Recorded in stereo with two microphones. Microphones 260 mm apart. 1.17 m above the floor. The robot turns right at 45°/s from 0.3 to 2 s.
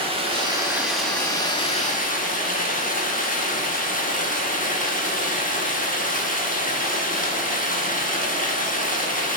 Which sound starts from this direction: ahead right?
Running water, at 0.0 s.